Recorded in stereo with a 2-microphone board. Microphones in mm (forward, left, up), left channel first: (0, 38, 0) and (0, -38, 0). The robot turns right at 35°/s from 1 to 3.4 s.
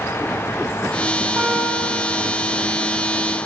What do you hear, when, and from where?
1.4 s a guitar: 25° right, 8.5 m; by 2.4 s 10° left, 8.5 m